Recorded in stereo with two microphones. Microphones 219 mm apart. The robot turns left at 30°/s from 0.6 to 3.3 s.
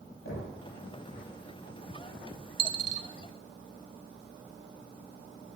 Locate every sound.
0.2 s knocking: 70° left (ahead or behind), 9.5 m
2.6 s a dropped coin: 40° right (ahead or behind), 0.9 m; by 3.1 s 55° right (ahead or behind), 0.9 m